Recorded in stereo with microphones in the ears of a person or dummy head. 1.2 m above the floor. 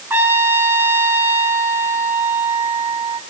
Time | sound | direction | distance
0.1 | a trumpet | 10° right (ahead or behind) | 1.3 m